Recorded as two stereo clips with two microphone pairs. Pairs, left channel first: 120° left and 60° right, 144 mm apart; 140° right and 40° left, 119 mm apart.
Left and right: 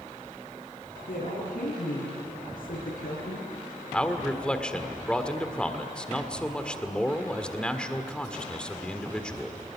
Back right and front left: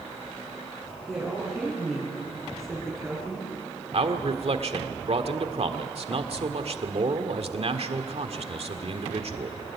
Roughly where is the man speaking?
Ahead left.